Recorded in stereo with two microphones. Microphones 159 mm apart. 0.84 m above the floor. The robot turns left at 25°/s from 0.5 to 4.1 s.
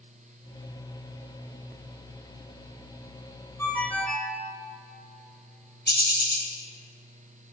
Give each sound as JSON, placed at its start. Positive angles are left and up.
{"t": 3.6, "sound": "a ringtone", "side_deg": 15, "distance_m": 1.7}
{"t": 5.9, "sound": "a bird", "side_deg": 85, "distance_m": 2.5}